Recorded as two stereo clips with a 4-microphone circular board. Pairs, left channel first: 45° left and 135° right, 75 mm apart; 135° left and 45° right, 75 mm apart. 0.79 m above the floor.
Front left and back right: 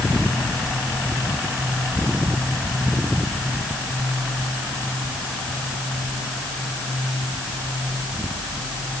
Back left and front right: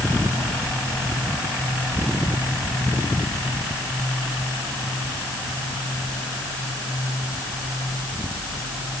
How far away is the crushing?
I don't hear crushing.